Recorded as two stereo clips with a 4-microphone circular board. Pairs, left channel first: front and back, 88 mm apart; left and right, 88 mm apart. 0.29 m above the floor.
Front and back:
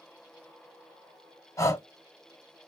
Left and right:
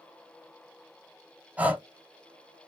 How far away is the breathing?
About 0.9 m.